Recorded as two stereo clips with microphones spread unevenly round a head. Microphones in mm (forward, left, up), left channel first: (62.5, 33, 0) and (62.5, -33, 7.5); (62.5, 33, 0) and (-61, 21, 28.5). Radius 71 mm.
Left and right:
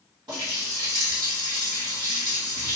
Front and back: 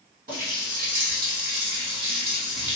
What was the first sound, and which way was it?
A running tap, 145° right.